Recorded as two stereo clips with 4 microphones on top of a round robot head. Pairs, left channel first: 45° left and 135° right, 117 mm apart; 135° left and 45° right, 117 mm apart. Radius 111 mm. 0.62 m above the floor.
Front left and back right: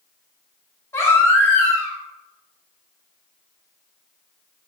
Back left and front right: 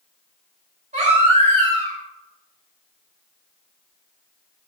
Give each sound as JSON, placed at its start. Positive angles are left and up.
{"t": 0.9, "sound": "a baby crying", "azimuth_deg": -20, "distance_m": 3.5}